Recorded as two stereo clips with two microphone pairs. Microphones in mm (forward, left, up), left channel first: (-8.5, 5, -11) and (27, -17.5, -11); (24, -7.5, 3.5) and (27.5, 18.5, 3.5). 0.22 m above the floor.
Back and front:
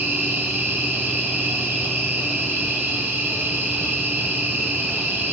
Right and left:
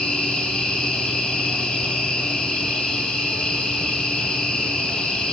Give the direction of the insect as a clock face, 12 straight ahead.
2 o'clock.